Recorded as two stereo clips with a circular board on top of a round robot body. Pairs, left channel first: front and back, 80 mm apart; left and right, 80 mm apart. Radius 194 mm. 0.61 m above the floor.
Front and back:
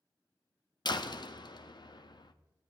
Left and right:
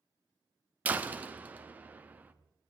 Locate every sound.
0.8 s a door slam: 20° right, 1.1 m